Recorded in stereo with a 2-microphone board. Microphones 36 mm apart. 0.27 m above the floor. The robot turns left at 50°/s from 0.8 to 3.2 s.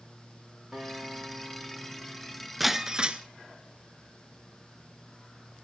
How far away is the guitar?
About 3.5 m.